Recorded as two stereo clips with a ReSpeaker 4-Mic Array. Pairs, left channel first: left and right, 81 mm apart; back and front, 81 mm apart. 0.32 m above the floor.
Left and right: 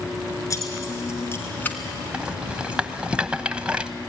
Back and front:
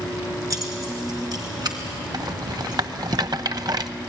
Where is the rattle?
15° right, 0.8 m.